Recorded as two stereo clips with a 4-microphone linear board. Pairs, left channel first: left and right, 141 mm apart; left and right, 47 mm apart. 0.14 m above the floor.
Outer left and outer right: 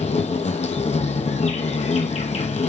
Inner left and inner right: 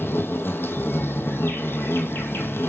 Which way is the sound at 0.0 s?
50° left (ahead or behind).